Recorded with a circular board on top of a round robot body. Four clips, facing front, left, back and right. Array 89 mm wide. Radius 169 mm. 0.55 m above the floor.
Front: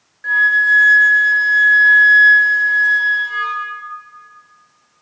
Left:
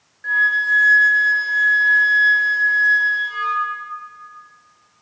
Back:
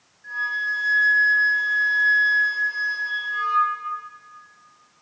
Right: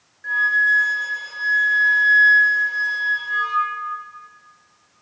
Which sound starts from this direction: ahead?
A flute, at 0.2 s.